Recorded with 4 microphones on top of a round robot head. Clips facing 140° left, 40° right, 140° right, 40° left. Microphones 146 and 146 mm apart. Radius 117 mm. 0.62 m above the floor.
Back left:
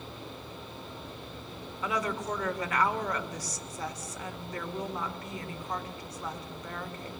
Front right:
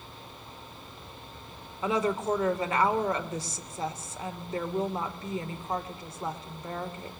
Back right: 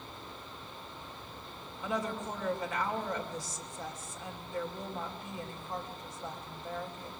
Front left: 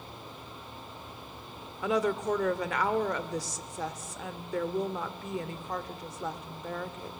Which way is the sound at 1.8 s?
25° left.